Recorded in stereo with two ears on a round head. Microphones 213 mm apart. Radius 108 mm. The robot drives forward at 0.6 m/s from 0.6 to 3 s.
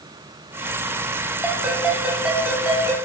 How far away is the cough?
I don't hear a cough.